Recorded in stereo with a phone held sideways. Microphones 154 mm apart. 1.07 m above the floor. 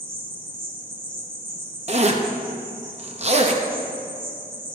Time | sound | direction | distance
0.0 | an insect | 70° right (ahead or behind) | 2.5 m
1.9 | a zipper | 45° right (ahead or behind) | 0.7 m